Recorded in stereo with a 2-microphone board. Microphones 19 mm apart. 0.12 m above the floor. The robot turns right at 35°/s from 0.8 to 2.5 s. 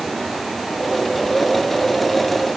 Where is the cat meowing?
I don't hear a cat meowing.